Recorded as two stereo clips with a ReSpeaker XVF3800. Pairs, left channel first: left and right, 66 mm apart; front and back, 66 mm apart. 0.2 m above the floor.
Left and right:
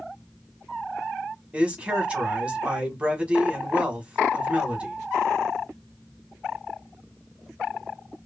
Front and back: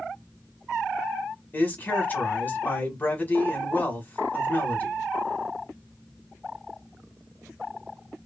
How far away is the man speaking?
About 1.1 m.